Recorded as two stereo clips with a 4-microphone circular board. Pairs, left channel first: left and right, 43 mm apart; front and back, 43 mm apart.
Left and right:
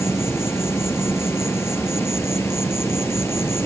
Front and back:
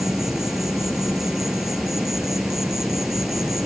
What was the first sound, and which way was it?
An insect, 100° left.